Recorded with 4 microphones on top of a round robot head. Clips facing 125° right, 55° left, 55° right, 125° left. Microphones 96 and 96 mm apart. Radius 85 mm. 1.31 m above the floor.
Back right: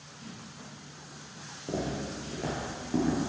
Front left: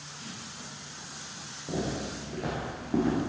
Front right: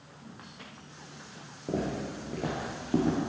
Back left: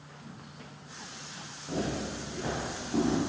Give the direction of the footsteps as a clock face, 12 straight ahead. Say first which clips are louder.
Front left 1 dB, front right 1 dB; 2 o'clock.